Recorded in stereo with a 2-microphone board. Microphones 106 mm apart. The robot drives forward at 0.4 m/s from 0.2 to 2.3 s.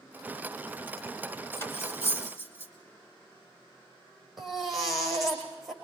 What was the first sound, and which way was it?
Cutlery clinking, 25° left (ahead or behind).